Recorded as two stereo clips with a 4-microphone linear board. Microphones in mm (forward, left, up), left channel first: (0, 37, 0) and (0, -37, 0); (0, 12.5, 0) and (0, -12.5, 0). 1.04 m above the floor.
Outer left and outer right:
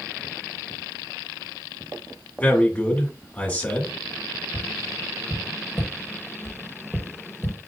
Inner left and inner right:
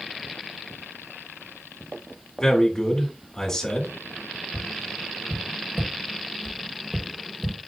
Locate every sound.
2.4 s a man speaking: 20° left (ahead or behind), 1.6 m
4.5 s tapping: 10° left (ahead or behind), 1.1 m